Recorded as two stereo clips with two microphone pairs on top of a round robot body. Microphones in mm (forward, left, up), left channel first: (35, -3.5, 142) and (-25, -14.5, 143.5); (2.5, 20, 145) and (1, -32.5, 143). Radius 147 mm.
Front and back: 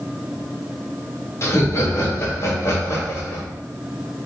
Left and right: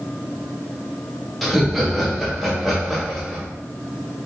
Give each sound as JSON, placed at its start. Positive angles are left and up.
{"t": 1.4, "sound": "laughter", "azimuth_deg": -10, "distance_m": 1.6}